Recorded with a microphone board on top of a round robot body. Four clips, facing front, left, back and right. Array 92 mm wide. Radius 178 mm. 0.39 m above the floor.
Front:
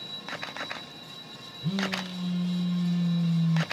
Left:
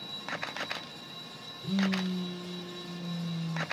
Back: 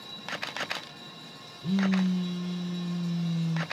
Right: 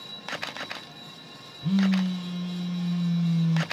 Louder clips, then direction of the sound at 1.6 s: Right 6 dB, back 5 dB; 75° right.